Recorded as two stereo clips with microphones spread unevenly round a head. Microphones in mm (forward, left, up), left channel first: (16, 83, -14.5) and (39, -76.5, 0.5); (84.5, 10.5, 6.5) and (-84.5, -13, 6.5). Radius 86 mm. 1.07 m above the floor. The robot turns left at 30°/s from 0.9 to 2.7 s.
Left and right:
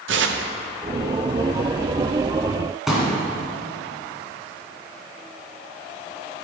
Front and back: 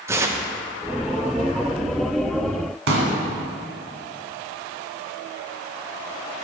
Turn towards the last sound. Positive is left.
turn(degrees=-165)